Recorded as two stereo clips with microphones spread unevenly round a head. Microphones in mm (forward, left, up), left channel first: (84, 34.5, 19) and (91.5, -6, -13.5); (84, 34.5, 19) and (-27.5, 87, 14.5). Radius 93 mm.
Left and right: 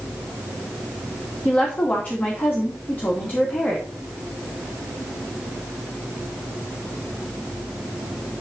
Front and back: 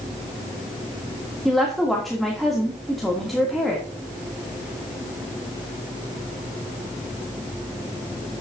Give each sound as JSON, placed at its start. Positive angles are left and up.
{"t": 1.4, "sound": "a woman speaking", "azimuth_deg": 65, "distance_m": 2.5}